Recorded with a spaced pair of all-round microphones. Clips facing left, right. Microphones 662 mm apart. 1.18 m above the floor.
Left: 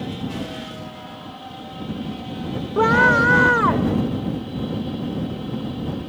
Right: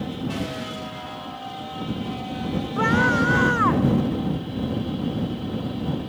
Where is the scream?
75° left (ahead or behind).